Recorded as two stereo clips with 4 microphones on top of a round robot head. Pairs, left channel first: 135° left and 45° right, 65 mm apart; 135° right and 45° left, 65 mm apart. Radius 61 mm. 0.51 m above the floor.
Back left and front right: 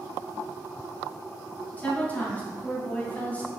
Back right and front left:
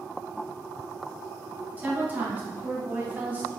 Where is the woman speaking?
90° left, 1.2 m.